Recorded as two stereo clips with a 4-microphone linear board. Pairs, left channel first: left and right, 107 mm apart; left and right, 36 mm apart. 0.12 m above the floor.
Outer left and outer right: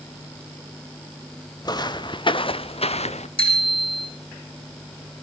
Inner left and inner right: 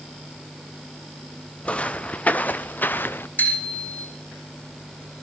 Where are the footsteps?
40° left (ahead or behind), 1.3 m; by 3.3 s 80° left, 0.8 m.